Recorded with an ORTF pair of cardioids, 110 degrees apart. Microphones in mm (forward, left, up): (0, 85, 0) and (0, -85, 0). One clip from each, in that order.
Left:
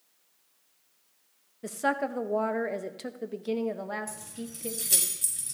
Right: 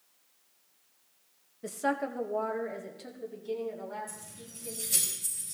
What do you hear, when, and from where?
1.6 s a woman speaking: 15° left, 1.1 m; by 5.1 s 80° left, 2 m
4.1 s keys jangling: 70° left, 5.5 m